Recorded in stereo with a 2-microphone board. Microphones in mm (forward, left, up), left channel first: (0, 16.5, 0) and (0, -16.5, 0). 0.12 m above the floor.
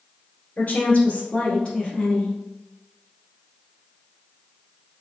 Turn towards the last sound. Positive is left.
turn(degrees=15)  # may be behind; listen again after turning